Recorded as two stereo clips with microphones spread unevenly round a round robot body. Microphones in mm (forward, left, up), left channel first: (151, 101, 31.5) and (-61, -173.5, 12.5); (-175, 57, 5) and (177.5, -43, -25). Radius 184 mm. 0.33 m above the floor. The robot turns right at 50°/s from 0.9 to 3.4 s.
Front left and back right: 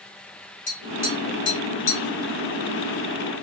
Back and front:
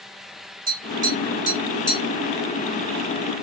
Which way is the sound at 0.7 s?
20° left.